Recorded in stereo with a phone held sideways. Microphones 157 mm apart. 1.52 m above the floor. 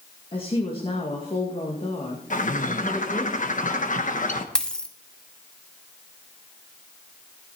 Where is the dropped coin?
5° left (ahead or behind), 1.2 m.